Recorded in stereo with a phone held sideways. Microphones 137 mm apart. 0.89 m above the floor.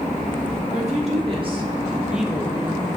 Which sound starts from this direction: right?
A woman speaking, at 0.7 s.